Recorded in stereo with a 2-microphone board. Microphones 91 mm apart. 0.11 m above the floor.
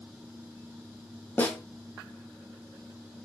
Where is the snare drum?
20° left (ahead or behind), 2.5 m.